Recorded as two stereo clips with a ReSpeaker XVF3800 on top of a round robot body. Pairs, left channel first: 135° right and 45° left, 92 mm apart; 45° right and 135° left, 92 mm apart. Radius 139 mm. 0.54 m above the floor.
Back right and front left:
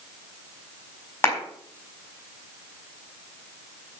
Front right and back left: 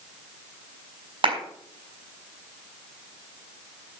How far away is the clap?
About 5 m.